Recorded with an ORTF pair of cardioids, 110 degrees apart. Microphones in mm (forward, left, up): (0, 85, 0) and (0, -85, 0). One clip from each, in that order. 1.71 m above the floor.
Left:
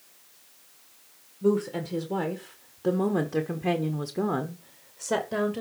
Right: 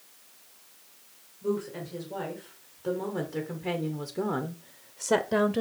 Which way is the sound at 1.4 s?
65° left.